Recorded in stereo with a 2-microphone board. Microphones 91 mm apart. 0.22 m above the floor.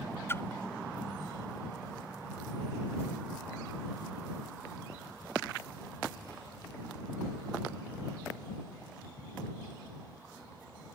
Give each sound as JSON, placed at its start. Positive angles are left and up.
{"t": 0.3, "sound": "a splash", "side_deg": 30}